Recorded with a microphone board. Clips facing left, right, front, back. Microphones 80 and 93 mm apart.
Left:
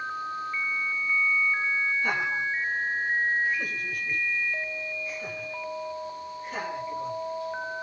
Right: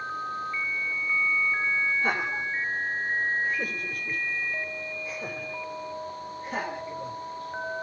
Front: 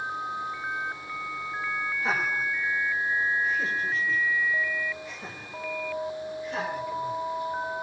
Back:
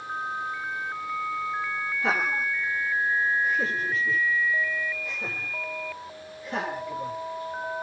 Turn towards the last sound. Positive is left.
turn(degrees=-135)